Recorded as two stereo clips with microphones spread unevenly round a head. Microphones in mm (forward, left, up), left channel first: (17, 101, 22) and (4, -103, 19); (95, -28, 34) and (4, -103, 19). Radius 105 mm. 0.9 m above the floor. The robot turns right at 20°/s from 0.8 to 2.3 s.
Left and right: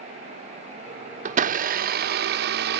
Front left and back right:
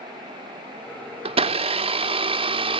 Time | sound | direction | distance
1.2 | a blender | 140° right | 0.6 m